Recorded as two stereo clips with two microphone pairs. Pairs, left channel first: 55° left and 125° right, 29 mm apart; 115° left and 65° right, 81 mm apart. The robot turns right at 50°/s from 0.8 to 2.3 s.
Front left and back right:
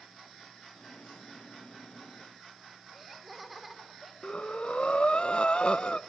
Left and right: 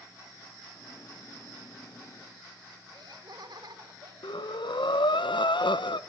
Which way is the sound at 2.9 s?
40° right.